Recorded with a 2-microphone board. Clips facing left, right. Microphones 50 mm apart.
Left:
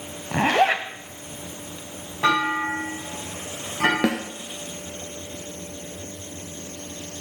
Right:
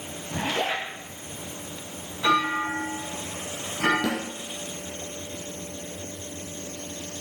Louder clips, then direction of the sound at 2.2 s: Left 2 dB; 65° left (ahead or behind).